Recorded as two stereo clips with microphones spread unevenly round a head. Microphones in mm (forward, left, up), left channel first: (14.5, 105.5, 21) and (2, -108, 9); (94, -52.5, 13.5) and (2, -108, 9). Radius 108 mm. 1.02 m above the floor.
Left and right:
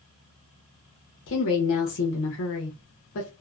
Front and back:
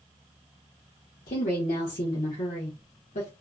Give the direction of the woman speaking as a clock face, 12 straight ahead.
10 o'clock.